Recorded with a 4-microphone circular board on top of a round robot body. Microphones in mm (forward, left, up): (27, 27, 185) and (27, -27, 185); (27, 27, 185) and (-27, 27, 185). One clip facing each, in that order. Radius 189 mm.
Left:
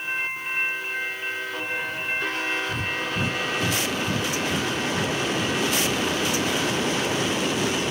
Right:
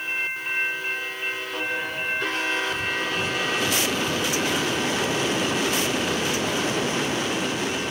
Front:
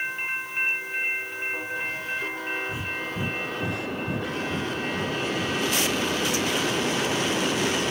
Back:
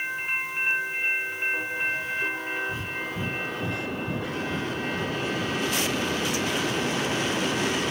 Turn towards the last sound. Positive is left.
turn(degrees=70)